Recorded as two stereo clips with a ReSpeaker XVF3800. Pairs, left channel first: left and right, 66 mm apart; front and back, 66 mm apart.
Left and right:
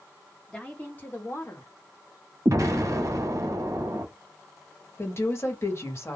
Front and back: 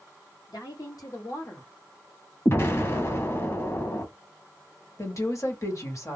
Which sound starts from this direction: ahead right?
An explosion, at 2.5 s.